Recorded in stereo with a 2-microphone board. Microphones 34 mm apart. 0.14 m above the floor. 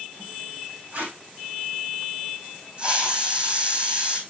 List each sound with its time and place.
0.9 s tape being pulled: 50° right (ahead or behind), 3 m
2.8 s a hiss: 30° right (ahead or behind), 2.5 m